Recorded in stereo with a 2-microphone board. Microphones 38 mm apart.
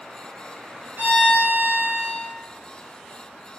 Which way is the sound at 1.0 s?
55° right (ahead or behind).